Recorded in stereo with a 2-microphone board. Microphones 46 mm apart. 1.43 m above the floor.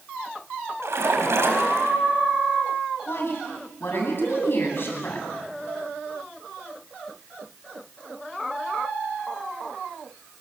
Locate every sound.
0.8 s a splash: 75° right (ahead or behind), 4 m
3.1 s a woman speaking: 55° left (ahead or behind), 9.5 m